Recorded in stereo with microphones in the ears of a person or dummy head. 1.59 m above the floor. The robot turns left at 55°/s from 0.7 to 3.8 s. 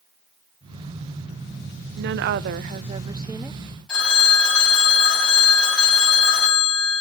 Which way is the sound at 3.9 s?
5° left (ahead or behind).